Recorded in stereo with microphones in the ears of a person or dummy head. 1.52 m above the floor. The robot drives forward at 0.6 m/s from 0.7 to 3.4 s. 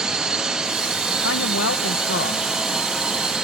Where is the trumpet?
I don't hear a trumpet.